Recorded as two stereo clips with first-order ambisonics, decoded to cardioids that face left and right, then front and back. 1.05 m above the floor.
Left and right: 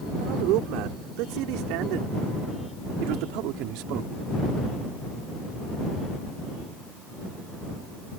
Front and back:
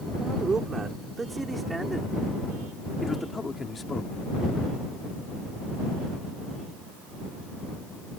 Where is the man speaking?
110° right; by 4.1 s 70° right.